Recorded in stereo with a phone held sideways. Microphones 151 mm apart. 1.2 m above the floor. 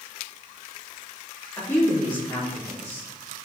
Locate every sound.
1.6 s a woman speaking: 10° left (ahead or behind), 3.5 m